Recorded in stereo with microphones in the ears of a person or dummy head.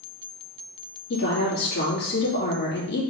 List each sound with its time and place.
1.1 s a woman speaking: 50° left (ahead or behind), 2 m